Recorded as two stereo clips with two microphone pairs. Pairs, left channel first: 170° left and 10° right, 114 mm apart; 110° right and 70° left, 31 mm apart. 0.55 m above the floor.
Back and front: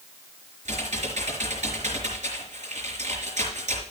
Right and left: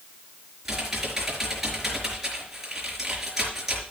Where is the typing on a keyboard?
10° right, 4.5 m.